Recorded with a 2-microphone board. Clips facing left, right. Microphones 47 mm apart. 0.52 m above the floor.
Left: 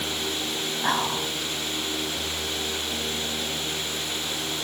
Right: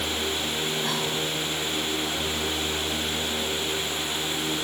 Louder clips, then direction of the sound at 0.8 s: Left 2 dB; 40° left (ahead or behind).